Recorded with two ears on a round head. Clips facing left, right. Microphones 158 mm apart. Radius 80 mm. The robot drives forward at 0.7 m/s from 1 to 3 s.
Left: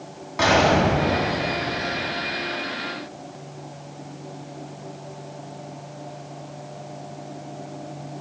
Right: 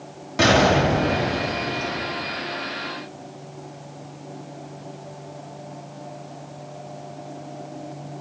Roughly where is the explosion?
Right.